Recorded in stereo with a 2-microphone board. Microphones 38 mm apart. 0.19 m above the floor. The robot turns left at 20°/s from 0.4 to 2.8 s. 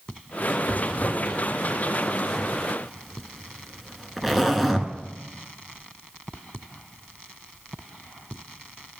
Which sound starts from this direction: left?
A zipper, at 0.7 s.